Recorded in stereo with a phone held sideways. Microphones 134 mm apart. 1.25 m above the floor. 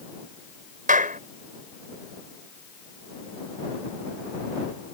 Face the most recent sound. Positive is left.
turn(degrees=-85)